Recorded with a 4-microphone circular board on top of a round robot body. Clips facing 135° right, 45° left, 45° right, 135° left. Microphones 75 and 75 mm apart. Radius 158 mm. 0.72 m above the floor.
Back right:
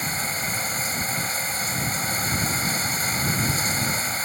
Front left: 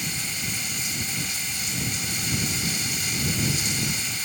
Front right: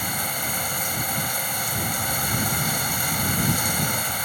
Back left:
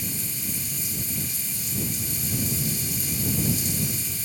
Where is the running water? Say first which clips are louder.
Back right 5 dB, front right 7 dB; 80° right.